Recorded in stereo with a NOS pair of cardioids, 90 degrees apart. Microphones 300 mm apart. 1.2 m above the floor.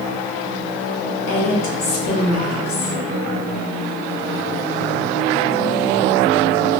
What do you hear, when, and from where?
1.3 s a woman speaking: 70° left, 1.9 m